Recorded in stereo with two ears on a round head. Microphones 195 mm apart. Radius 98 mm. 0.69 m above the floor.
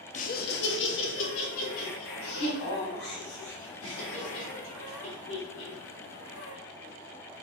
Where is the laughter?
35° left (ahead or behind), 0.6 m; by 6.5 s 75° left (ahead or behind), 5.5 m.